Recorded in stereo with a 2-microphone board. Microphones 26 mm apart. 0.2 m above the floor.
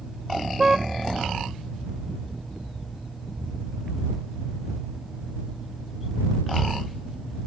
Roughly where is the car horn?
Centre.